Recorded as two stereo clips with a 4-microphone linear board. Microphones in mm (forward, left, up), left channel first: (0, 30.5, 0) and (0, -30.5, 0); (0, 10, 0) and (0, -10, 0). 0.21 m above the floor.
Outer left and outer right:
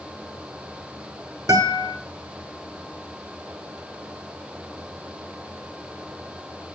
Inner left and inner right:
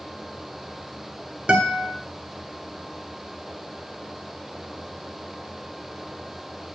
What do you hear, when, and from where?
1.5 s a guitar: 70° right (ahead or behind), 0.8 m